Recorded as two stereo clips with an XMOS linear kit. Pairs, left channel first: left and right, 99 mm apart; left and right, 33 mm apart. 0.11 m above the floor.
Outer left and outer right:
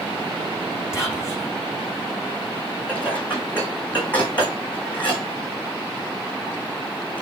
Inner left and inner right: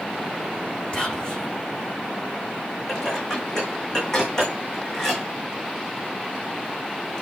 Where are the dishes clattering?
15° left (ahead or behind), 5 m.